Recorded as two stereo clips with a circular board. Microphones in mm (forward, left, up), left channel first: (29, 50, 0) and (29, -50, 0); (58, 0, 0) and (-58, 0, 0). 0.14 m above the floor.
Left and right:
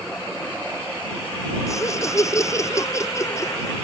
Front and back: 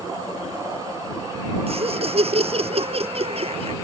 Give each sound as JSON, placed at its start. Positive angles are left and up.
{"t": 1.7, "sound": "laughter", "azimuth_deg": 150}